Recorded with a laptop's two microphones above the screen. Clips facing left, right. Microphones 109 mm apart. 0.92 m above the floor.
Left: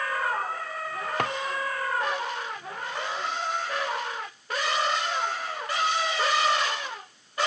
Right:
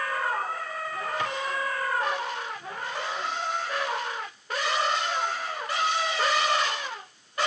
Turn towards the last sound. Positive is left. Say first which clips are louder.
# left 4 dB
turn(degrees=65)  # may be behind; listen again after turning